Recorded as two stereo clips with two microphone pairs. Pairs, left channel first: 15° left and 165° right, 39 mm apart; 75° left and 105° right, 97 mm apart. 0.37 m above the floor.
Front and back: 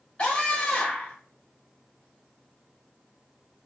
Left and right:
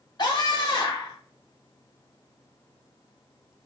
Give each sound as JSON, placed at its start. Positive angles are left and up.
{"t": 0.2, "sound": "a scream", "azimuth_deg": 70, "distance_m": 1.3}